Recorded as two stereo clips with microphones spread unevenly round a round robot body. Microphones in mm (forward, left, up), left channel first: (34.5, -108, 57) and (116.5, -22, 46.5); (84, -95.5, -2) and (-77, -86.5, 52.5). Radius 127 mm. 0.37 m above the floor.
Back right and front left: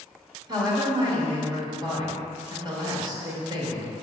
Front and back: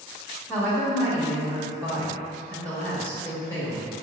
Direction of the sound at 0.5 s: 45° left.